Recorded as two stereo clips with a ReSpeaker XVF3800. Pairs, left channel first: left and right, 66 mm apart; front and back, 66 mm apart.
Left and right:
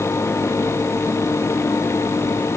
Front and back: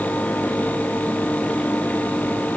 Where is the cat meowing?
I don't hear a cat meowing.